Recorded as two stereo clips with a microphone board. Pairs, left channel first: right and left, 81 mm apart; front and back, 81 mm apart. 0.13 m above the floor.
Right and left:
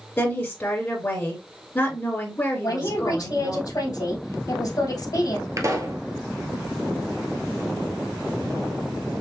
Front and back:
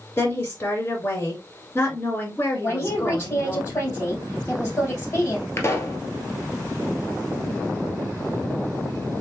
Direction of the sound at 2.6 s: 60° right.